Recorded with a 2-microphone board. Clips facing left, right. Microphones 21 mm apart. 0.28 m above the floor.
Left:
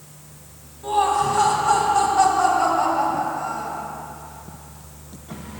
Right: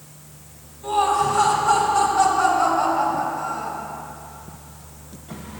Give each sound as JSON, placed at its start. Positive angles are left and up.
{"t": 0.8, "sound": "laughter", "side_deg": 15, "distance_m": 1.8}